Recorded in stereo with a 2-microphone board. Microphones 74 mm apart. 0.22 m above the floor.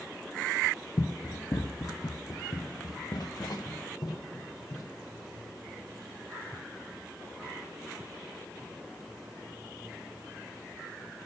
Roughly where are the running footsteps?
Left.